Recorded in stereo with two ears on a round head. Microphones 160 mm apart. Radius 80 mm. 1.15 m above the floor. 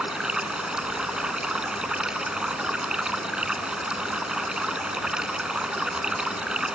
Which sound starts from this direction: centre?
Running water, at 0.0 s.